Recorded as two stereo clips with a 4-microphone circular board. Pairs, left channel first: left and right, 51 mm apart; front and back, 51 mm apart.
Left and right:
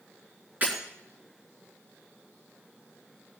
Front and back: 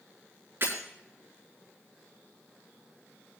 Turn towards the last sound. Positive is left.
turn(degrees=-145)